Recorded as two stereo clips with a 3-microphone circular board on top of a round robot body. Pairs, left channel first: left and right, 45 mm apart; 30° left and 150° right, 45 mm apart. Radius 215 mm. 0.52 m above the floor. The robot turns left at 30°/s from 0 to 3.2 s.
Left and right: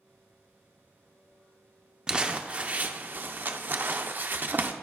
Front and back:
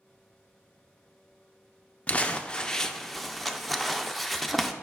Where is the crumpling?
25° right, 0.8 m; by 4.7 s 55° right, 0.8 m.